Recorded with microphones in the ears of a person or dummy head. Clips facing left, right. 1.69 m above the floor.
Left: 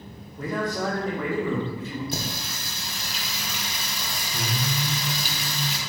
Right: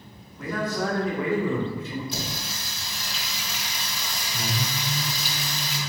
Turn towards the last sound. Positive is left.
turn(degrees=45)  # may be behind; listen again after turning